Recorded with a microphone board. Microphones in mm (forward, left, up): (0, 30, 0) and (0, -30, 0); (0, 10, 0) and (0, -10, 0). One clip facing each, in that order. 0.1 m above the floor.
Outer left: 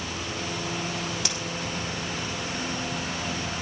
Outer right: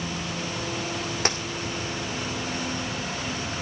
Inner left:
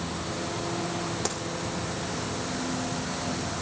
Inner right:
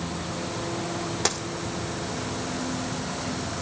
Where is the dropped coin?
40° right (ahead or behind), 1.8 m.